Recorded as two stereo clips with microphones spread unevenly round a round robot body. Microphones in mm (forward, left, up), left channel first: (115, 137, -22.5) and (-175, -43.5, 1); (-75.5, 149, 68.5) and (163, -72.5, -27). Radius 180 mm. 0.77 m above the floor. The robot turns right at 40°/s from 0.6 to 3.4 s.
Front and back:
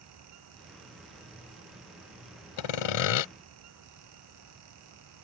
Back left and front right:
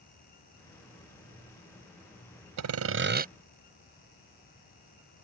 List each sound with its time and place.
2.6 s sawing: straight ahead; by 3.3 s 30° left